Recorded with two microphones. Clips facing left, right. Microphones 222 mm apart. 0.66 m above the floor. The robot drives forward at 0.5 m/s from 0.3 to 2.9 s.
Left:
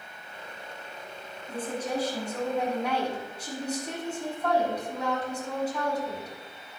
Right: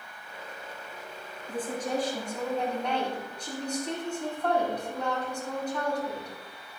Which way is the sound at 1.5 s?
10° left (ahead or behind).